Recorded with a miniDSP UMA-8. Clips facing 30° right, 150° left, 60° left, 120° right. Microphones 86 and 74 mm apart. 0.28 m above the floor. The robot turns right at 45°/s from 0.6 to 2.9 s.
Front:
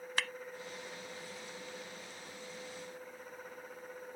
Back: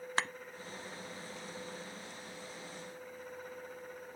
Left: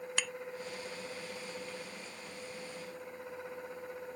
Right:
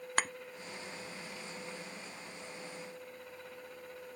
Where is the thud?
155° right.